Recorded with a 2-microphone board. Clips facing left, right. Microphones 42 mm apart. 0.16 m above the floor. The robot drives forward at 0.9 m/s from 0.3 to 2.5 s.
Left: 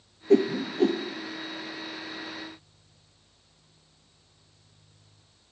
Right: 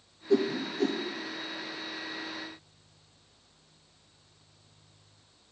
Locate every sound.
0.3 s a whoosh: 65° left (ahead or behind), 0.6 m; by 1.0 s 35° left (ahead or behind), 1.0 m